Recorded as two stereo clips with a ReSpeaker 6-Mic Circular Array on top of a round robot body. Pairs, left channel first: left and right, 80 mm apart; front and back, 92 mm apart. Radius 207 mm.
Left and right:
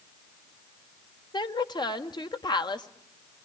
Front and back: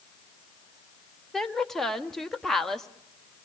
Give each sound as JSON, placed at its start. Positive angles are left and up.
{"t": 1.3, "sound": "a woman speaking", "azimuth_deg": 85, "distance_m": 1.7}